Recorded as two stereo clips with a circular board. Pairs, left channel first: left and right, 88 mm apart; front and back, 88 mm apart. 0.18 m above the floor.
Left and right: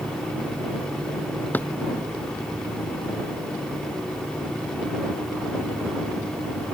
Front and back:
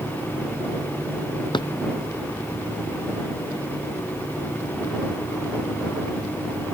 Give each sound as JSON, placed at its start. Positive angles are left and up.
{"t": 1.5, "sound": "a drawer", "azimuth_deg": 20}